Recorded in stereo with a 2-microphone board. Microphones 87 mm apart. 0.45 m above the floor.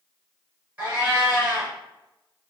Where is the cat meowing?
15° right (ahead or behind), 1.9 m.